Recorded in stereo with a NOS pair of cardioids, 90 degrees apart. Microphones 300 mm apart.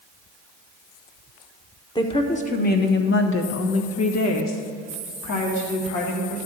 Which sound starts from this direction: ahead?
A woman speaking, at 1.9 s.